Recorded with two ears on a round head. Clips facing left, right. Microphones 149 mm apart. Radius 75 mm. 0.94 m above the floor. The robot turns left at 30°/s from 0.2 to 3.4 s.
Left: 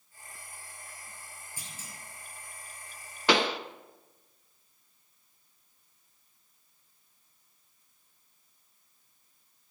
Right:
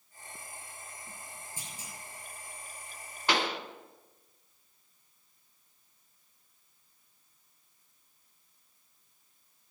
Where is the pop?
60° left (ahead or behind), 0.9 m.